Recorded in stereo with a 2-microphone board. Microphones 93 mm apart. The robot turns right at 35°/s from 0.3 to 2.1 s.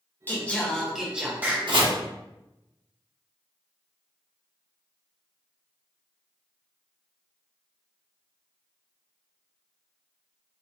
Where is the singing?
160° left, 0.6 m; by 1.6 s 155° right, 0.6 m.